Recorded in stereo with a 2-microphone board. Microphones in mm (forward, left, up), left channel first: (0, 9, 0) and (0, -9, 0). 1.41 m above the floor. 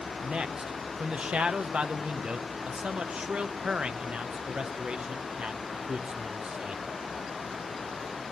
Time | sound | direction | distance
0.2 | a man speaking | 75° right (ahead or behind) | 0.7 m